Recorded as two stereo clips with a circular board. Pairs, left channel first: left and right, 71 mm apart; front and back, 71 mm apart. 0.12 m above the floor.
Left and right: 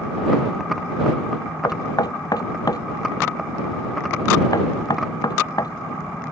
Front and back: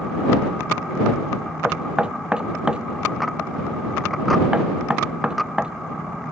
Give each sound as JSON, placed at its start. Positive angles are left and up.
{"t": 1.6, "sound": "knocking", "azimuth_deg": 105}